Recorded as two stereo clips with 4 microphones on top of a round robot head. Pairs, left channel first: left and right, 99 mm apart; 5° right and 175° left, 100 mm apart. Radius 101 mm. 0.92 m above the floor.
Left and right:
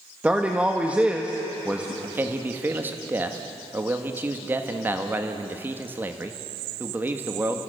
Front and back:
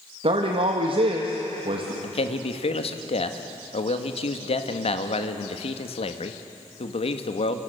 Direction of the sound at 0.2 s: 165° right.